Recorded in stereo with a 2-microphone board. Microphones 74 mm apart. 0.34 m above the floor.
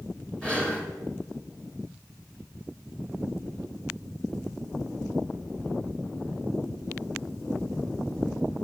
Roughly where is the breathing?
Centre.